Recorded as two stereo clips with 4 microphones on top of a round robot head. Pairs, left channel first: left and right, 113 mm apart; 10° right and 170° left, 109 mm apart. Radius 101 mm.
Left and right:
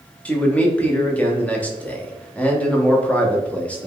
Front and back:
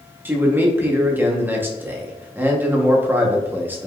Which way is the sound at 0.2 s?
145° left.